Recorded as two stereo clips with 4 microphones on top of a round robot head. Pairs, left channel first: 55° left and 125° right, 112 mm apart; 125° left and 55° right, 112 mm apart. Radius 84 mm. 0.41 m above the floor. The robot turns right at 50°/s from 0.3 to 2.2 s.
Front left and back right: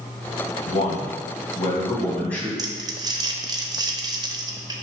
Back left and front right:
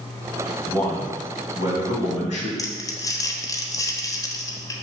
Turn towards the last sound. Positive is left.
turn(degrees=-175)